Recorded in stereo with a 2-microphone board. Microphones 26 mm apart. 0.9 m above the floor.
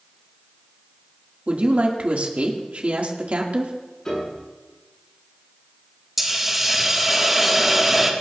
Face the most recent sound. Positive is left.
turn(degrees=-5)  # may be behind; listen again after turning